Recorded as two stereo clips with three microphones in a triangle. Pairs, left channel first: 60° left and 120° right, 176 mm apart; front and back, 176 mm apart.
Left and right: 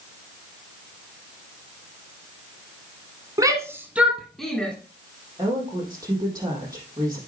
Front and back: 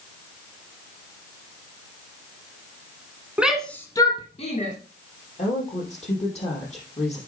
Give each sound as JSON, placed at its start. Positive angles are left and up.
{"t": 3.4, "sound": "a shout", "azimuth_deg": -110, "distance_m": 1.6}
{"t": 5.4, "sound": "a woman speaking", "azimuth_deg": -50, "distance_m": 5.0}